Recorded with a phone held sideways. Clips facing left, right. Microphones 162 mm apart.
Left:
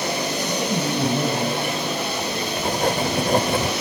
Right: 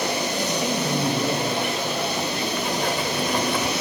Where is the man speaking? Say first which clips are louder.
Left 2 dB; 60° left (ahead or behind), 6 m; by 2.5 s 30° left (ahead or behind), 5 m.